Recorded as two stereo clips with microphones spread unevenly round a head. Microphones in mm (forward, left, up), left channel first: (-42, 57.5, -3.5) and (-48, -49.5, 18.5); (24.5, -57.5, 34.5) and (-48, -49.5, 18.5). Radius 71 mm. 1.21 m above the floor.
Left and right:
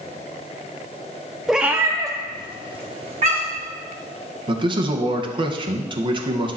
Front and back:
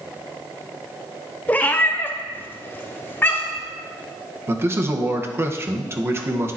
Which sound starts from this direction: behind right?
A man speaking, at 4.5 s.